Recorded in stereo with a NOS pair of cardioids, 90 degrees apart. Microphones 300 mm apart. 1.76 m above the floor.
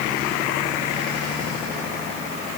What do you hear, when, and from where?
Only background noise.